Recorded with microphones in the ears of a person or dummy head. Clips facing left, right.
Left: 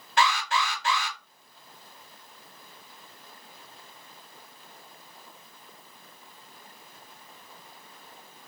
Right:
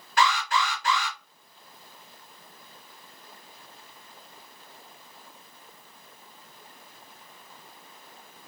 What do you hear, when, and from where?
0.2 s an alarm: 20° left (ahead or behind), 3 m